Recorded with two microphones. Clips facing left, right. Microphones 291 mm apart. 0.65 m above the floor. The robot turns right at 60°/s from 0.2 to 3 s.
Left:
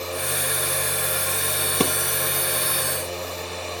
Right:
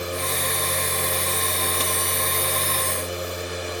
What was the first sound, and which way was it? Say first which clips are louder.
A drawer: left 9 dB; 70° left (ahead or behind).